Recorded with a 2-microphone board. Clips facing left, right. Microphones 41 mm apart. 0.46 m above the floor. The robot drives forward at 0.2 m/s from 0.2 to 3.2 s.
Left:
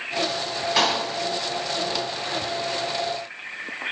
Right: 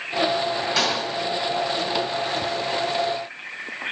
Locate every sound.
0.8 s a clap: 20° left (ahead or behind), 2.5 m